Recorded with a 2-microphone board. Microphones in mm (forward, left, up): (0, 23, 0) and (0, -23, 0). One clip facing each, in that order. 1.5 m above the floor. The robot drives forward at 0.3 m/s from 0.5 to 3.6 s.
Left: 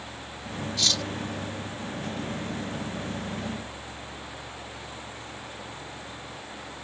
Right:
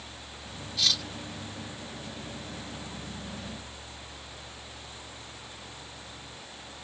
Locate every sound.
0.8 s cutlery clinking: 5° right (ahead or behind)